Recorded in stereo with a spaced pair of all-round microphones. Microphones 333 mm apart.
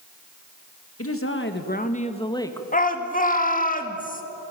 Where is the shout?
25° left (ahead or behind), 2.5 m.